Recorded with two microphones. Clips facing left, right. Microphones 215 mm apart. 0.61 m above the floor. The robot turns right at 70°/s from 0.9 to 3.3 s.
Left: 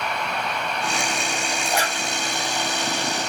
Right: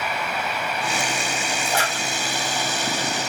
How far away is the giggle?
I don't hear a giggle.